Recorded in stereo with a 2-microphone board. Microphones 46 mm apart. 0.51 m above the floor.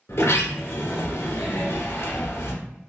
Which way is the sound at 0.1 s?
65° left (ahead or behind).